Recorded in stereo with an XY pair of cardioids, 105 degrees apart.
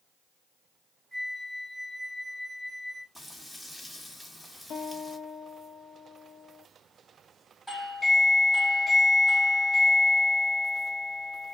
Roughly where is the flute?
Ahead.